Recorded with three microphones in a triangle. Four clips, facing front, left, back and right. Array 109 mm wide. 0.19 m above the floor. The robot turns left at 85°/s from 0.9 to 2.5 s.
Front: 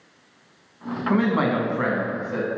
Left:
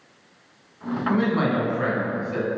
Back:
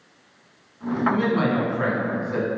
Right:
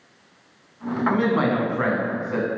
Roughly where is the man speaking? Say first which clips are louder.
Right 1 dB, front 1 dB; ahead.